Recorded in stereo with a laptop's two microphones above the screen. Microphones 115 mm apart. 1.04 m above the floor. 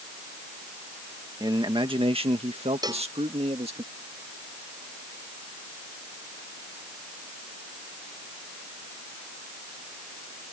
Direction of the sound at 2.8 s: 35° right (ahead or behind).